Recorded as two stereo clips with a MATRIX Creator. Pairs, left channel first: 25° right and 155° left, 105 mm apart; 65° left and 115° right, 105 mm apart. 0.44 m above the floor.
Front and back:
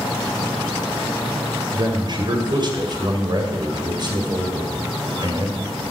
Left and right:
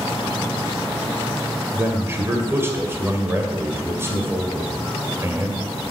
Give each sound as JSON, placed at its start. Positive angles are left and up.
{"t": 1.7, "sound": "a man speaking", "azimuth_deg": -175, "distance_m": 2.0}